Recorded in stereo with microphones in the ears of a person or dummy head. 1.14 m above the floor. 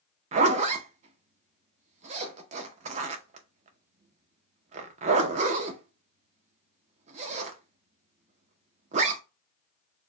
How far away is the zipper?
About 0.6 m.